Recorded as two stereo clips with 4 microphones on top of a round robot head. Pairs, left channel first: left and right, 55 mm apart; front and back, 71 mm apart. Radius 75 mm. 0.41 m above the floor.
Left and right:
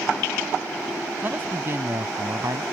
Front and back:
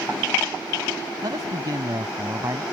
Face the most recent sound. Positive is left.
turn(degrees=-120)